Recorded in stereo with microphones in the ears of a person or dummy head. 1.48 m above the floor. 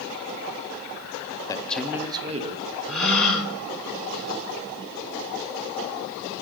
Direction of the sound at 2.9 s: 5° left (ahead or behind).